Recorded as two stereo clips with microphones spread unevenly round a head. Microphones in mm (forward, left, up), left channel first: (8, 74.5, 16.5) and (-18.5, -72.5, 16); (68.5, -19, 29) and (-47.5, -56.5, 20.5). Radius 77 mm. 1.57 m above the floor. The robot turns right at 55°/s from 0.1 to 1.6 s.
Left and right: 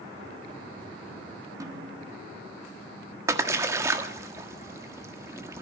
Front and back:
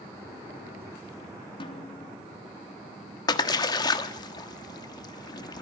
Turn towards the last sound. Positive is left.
turn(degrees=-30)